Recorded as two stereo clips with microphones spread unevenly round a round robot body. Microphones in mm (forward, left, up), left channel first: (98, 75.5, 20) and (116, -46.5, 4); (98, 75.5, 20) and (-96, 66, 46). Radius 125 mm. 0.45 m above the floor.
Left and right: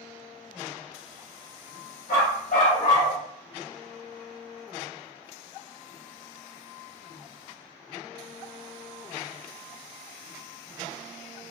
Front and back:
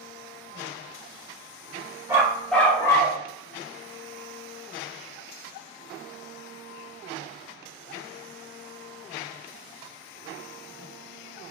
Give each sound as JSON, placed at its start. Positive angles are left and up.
{"t": 2.1, "sound": "a dog barking", "azimuth_deg": 105, "distance_m": 1.2}